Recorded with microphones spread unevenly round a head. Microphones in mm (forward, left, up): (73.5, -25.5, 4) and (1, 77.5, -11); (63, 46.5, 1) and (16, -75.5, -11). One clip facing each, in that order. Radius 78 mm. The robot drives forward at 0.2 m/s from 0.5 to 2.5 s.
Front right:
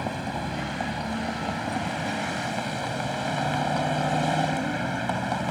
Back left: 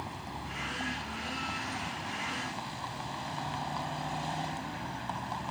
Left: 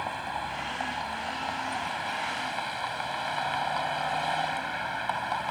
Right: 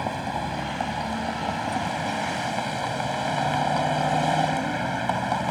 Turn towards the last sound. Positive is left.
turn(degrees=-70)